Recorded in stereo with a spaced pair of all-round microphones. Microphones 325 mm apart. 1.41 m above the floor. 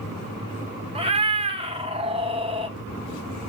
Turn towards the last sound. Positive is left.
turn(degrees=-15)  # may be behind; listen again after turning